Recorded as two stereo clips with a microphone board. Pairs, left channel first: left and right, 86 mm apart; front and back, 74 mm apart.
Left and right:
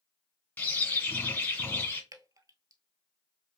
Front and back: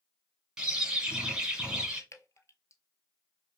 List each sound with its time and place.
0.6 s a bird: 120° left, 1.6 m
2.1 s dripping: 45° right, 0.8 m